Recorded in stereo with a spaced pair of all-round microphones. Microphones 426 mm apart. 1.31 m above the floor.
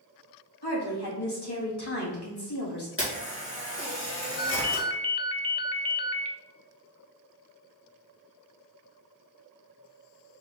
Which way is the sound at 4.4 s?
65° left (ahead or behind).